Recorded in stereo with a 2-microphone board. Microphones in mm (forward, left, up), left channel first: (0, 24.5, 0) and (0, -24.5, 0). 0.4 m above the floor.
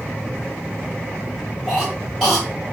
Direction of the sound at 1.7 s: 5° left (ahead or behind).